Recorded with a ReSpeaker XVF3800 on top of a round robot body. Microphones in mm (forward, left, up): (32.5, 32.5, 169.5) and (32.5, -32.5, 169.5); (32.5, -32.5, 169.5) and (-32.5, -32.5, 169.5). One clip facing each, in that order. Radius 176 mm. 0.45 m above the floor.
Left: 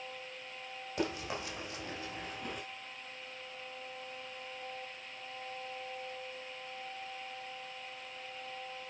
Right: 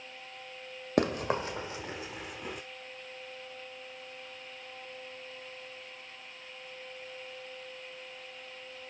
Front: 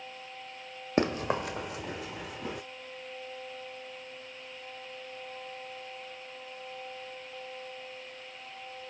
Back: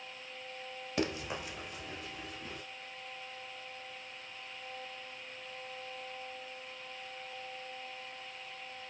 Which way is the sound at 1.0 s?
55° right.